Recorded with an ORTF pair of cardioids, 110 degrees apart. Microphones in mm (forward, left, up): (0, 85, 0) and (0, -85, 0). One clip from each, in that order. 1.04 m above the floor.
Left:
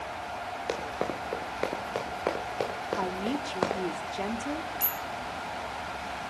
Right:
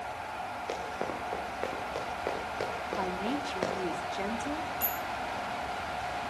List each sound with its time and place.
0.7 s running footsteps: 35° left, 5 m
3.0 s a woman speaking: 20° left, 2 m
4.8 s a bicycle bell: 30° left, 2 m